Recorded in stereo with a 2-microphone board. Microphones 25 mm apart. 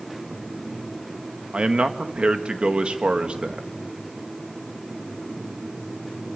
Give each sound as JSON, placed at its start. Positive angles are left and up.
{"t": 1.5, "sound": "a man speaking", "side_deg": -45, "distance_m": 1.8}